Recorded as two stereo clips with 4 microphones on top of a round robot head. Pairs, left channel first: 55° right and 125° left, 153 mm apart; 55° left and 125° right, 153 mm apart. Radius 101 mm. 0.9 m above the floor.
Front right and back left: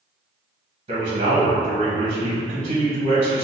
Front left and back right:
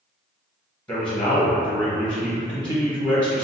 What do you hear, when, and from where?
0.9 s a man speaking: 135° left, 1.1 m